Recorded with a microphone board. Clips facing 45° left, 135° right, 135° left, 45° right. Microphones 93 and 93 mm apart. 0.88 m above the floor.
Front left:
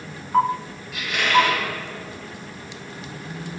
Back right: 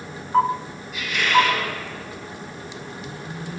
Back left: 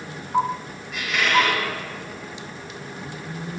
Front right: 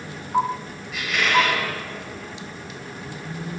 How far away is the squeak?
About 3.5 m.